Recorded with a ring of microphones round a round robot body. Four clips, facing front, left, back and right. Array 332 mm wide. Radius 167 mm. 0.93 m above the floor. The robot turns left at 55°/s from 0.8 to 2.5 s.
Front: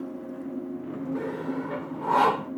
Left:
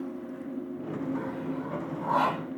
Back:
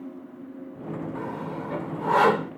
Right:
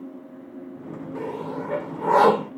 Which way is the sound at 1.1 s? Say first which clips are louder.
Right 3 dB, front 2 dB; 50° right.